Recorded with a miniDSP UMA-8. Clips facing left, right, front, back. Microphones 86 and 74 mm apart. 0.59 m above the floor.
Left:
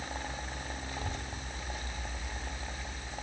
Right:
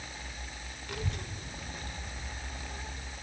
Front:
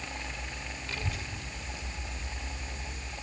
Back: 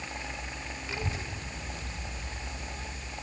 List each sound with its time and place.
0.9 s a child speaking: 105° right, 1.0 m; by 3.0 s 160° right, 2.5 m